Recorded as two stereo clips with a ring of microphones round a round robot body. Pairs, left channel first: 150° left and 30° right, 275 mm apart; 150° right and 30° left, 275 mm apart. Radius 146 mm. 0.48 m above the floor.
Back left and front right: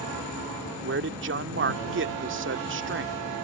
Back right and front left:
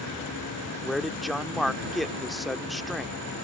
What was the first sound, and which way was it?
A man speaking, 60° right.